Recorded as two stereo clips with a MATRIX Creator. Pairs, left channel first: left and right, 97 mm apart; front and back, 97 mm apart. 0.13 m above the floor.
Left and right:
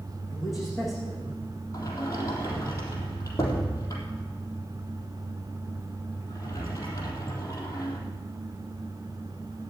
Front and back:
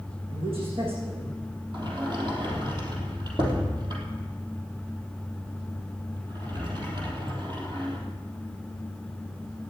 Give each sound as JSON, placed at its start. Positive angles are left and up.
{"t": 0.3, "sound": "a man speaking", "azimuth_deg": 180, "distance_m": 8.5}
{"t": 1.7, "sound": "a sliding door", "azimuth_deg": 140, "distance_m": 3.5}